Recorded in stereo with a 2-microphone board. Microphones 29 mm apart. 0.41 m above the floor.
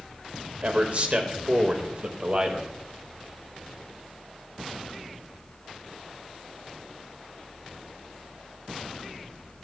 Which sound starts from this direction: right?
A man speaking, at 0.6 s.